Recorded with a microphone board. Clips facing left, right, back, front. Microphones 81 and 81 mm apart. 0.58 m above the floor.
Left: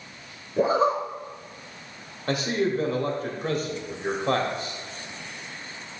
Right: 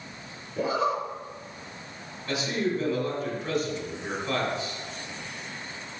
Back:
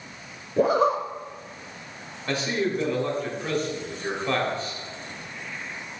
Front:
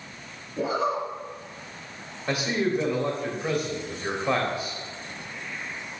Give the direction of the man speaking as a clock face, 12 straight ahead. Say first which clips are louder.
Left 3 dB, even; 9 o'clock.